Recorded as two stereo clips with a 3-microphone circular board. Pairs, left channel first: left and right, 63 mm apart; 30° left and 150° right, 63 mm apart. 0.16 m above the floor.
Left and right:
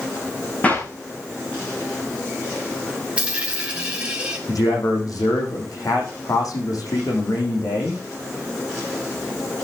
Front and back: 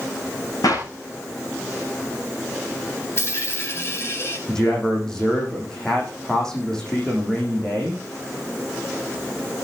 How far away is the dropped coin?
About 3 m.